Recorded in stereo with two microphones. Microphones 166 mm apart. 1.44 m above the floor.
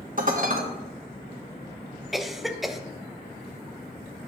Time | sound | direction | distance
0.2 | dishes clattering | 55° right (ahead or behind) | 1.2 m
2.1 | a cough | centre (ahead or behind) | 0.8 m